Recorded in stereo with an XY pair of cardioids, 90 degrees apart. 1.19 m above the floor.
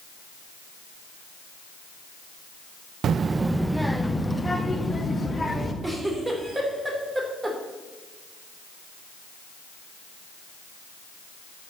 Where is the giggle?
25° right, 2.5 m.